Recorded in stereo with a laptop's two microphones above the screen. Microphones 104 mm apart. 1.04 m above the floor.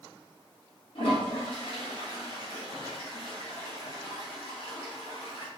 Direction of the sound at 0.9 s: 60° left (ahead or behind).